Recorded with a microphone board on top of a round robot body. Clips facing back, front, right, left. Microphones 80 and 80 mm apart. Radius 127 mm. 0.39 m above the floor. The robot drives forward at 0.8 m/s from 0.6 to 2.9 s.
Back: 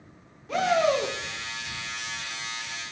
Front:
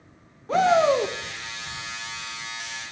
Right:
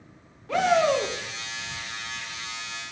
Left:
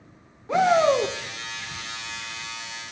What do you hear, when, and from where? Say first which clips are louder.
0.5 s a shout: front 4 dB, left 3 dB; 30° left, 1.7 m; by 1.2 s 45° left, 1.5 m